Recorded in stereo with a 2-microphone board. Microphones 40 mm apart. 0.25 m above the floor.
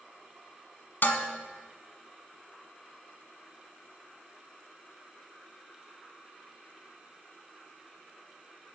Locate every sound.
1.0 s dishes clattering: 60° left (ahead or behind), 1.3 m